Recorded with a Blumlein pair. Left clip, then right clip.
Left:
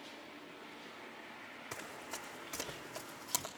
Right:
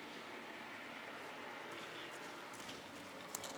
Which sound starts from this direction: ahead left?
Running footsteps, at 1.7 s.